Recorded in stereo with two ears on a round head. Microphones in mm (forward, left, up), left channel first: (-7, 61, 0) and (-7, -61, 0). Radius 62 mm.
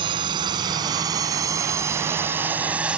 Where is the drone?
35° right (ahead or behind); by 3.0 s 5° right (ahead or behind).